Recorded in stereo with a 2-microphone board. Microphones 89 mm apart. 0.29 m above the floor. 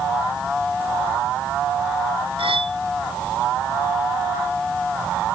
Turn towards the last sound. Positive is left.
turn(degrees=-85)